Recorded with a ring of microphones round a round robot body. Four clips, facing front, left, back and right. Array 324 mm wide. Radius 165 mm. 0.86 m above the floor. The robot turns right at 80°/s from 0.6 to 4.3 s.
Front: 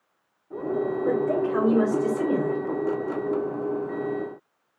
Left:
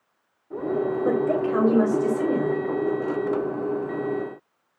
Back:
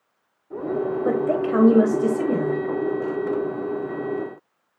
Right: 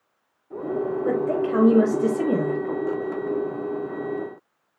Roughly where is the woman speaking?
Behind left.